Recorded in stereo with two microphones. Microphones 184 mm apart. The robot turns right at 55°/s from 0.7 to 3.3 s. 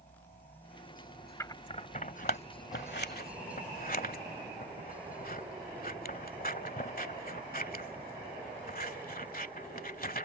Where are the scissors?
15° left (ahead or behind); by 10.2 s 50° left (ahead or behind).